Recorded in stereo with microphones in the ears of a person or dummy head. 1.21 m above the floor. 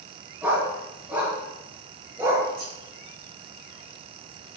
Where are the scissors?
65° right (ahead or behind), 5.5 m.